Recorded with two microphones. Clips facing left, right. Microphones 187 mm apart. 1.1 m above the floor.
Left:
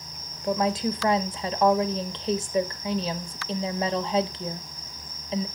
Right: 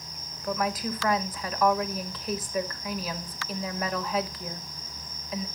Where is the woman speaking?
25° left (ahead or behind), 1.3 m.